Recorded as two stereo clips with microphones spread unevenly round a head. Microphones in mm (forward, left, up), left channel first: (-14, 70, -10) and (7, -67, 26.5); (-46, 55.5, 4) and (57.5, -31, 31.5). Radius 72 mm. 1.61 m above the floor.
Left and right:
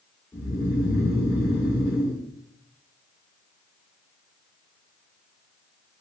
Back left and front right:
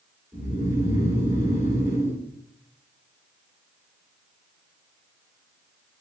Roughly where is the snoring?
Ahead left.